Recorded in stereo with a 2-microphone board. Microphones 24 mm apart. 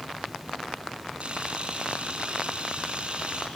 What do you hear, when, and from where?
1.2 s a camera shutter: 50° right (ahead or behind), 3.5 m